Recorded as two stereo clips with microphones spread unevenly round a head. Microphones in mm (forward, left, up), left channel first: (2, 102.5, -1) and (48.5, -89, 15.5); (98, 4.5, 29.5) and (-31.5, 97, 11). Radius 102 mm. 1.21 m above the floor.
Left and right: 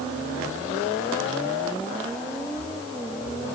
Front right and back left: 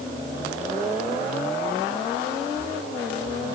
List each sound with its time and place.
Only background noise.